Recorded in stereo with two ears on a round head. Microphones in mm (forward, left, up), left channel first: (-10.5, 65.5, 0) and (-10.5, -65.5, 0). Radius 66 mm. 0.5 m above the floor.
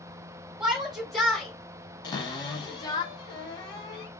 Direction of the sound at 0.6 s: Centre (ahead or behind).